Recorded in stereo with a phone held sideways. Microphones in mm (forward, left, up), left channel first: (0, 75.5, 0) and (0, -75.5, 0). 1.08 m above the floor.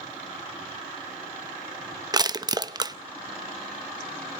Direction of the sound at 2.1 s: 25° right (ahead or behind).